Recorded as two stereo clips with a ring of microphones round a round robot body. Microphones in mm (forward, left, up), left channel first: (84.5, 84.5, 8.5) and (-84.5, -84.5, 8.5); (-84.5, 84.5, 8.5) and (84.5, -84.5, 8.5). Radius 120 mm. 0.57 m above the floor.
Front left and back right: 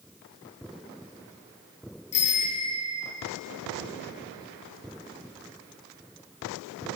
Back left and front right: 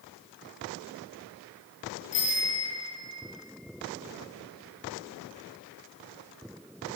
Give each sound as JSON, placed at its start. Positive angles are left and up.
{"t": 2.1, "sound": "a bicycle bell", "azimuth_deg": 95, "distance_m": 9.5}